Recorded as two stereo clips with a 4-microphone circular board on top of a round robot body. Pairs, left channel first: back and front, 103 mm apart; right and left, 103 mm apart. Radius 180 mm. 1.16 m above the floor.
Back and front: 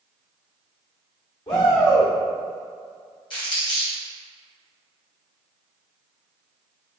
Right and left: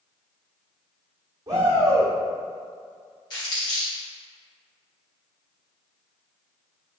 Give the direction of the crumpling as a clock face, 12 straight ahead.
5 o'clock.